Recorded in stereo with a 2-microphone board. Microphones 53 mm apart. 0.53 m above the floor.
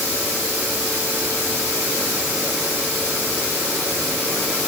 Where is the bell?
I don't hear a bell.